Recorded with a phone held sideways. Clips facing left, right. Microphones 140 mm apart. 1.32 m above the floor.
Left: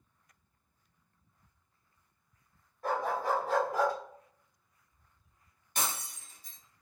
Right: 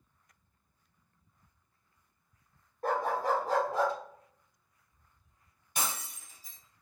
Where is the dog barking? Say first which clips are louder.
Right 1 dB; 45° right (ahead or behind), 1.5 m; by 4.0 s 20° right (ahead or behind), 0.8 m.